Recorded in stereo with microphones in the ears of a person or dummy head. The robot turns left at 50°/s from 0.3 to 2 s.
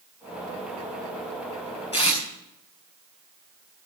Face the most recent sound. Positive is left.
turn(degrees=30)  # may be behind; listen again after turning